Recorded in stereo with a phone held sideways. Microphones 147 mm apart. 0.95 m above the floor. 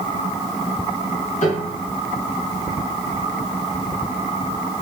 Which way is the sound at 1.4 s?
55° left (ahead or behind).